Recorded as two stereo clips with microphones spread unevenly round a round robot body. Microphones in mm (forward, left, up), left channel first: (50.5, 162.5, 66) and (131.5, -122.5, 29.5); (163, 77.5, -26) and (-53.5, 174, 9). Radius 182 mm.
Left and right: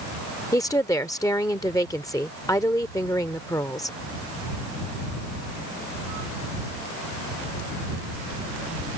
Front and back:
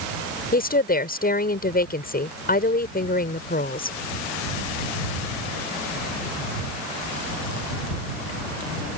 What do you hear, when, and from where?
0.5 s a woman speaking: 25° left